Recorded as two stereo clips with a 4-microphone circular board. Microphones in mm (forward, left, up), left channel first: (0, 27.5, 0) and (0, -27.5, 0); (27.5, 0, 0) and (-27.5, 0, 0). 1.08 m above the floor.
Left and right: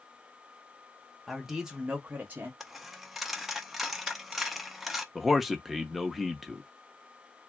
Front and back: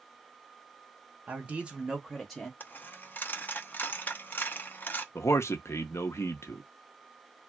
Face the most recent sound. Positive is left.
turn(degrees=0)